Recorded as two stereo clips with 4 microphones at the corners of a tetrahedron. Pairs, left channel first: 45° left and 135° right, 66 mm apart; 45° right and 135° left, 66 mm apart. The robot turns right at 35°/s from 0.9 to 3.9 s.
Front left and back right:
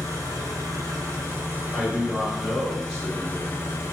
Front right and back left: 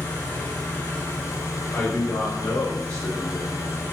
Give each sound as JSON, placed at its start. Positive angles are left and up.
{"t": 0.0, "sound": "an engine running", "azimuth_deg": -100, "distance_m": 0.9}
{"t": 1.7, "sound": "a man speaking", "azimuth_deg": -90, "distance_m": 1.1}